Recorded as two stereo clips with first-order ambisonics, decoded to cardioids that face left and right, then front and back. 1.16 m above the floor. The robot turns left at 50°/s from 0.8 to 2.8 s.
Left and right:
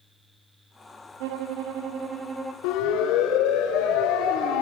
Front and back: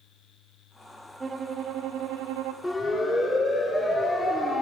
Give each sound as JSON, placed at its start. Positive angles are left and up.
{"t": 1.2, "sound": "a violin", "azimuth_deg": -105, "distance_m": 1.4}
{"t": 2.6, "sound": "a siren", "azimuth_deg": 85, "distance_m": 4.5}